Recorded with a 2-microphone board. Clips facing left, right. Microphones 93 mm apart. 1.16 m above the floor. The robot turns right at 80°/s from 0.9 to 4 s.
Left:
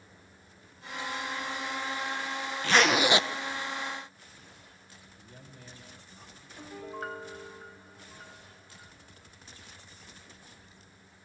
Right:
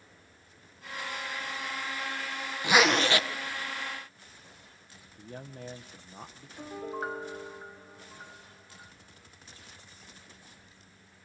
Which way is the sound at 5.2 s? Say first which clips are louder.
Right 11 dB; 55° right (ahead or behind).